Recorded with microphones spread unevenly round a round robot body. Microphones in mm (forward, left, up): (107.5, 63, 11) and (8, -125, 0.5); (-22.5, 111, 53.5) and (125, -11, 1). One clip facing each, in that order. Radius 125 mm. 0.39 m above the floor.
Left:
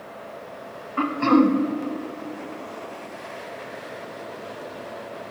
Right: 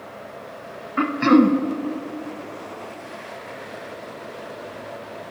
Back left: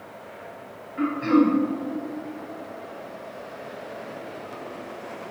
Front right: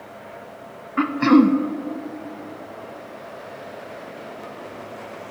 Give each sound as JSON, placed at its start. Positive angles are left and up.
{"t": 1.0, "sound": "throat clearing", "azimuth_deg": -45, "distance_m": 0.5}